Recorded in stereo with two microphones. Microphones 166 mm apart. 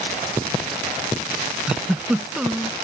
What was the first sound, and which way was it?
A giggle, 5° right (ahead or behind).